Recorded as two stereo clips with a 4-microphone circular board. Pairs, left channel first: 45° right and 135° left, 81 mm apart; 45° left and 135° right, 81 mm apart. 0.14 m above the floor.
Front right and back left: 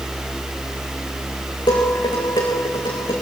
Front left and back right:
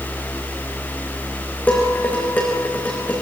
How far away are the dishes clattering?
About 8 m.